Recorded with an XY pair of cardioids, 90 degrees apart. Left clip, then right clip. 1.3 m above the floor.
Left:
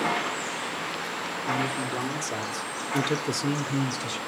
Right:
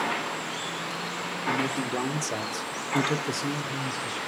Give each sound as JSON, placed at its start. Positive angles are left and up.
{"t": 1.5, "sound": "a man speaking", "azimuth_deg": -40, "distance_m": 1.3}